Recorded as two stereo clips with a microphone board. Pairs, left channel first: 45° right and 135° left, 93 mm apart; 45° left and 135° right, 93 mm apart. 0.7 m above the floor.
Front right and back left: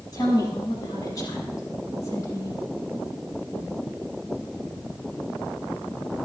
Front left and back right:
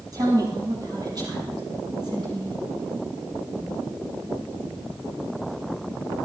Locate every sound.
0.1 s a woman speaking: 90° right, 8 m; by 2.6 s 100° right, 9 m